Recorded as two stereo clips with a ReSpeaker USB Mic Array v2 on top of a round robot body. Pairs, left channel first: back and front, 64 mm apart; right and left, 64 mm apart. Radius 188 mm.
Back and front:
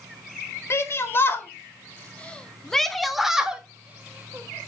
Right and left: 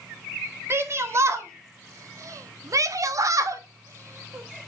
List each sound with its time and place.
0.7 s a shout: 140° left, 2 m; by 4.7 s 45° left, 1.6 m